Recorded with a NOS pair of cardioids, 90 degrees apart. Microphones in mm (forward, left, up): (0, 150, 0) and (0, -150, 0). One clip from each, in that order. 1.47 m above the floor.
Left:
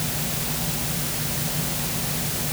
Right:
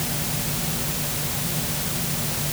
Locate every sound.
Only background noise.